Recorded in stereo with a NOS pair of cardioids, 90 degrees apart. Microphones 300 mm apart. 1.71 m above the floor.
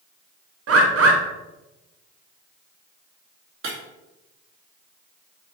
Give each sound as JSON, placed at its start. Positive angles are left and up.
{"t": 0.7, "sound": "a bird", "azimuth_deg": -50, "distance_m": 1.6}
{"t": 3.6, "sound": "breaking glass", "azimuth_deg": -50, "distance_m": 2.5}